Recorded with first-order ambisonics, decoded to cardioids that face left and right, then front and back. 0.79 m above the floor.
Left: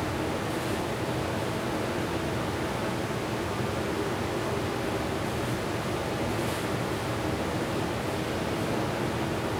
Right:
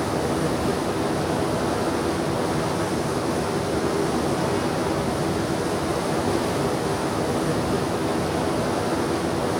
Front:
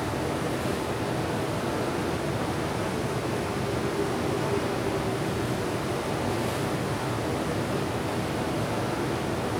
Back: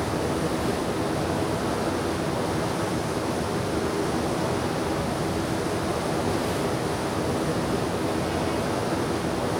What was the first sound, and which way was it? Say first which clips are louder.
Running water: right 7 dB, back 3 dB; 110° right.